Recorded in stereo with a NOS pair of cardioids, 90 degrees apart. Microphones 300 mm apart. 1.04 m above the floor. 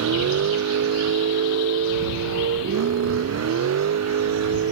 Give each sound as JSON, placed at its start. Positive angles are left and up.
{"t": 0.0, "sound": "a vehicle", "azimuth_deg": -55}